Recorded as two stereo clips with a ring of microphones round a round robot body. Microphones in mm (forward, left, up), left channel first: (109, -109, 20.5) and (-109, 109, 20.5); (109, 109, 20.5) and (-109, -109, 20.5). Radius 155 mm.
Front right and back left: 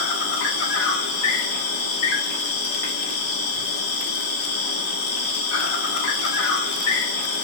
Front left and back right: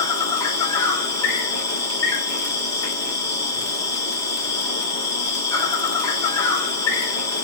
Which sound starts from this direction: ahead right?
An insect, at 0.0 s.